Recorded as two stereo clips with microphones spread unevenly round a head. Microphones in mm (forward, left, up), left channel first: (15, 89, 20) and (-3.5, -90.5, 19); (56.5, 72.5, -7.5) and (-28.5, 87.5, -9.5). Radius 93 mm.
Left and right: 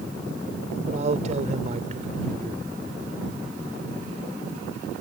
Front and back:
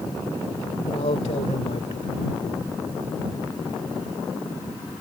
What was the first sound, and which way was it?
A man speaking, 40° right.